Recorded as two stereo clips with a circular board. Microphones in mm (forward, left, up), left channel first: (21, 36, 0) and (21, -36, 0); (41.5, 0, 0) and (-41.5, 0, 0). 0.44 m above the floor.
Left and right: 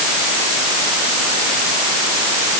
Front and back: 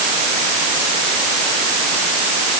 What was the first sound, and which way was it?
Only background noise.